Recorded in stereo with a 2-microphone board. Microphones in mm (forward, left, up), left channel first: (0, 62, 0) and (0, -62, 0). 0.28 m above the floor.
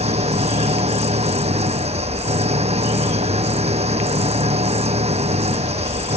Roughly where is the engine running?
Right.